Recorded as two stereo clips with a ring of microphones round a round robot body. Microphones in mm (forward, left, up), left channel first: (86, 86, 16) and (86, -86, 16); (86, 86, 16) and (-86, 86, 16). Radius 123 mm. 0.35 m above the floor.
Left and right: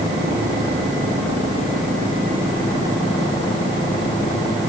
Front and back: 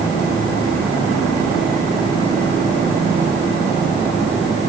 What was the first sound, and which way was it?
Only background noise.